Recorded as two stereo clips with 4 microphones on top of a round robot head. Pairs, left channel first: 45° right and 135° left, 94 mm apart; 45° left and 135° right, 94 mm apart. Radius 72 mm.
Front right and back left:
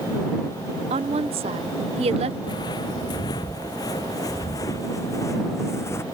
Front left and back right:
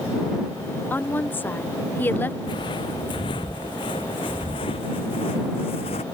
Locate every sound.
0.9 s a woman speaking: 115° left
2.4 s footsteps: 5° left; by 6.0 s 20° left